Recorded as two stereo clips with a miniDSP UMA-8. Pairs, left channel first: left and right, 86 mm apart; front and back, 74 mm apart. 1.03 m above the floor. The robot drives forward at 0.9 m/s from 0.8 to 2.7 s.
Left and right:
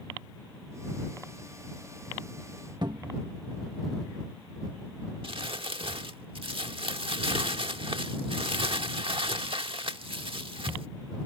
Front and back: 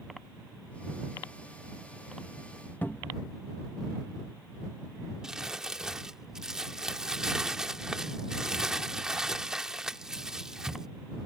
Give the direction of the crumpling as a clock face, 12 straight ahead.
3 o'clock.